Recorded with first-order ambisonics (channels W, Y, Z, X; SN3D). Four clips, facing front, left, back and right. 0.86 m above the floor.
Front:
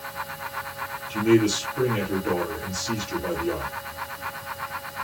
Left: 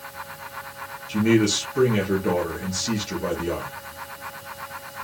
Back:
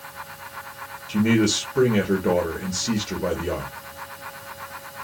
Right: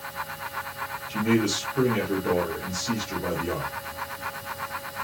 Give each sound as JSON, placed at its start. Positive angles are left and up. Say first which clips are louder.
{"t": 1.1, "sound": "a man speaking", "louder": "left 4 dB, even", "azimuth_deg": 155, "distance_m": 1.6}